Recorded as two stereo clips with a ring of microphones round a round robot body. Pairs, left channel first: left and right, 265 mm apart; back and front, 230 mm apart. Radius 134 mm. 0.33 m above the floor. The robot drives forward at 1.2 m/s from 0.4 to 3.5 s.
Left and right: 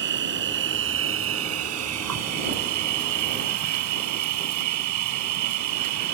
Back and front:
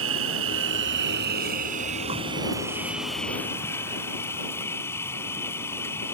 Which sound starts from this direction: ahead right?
An insect, at 0.0 s.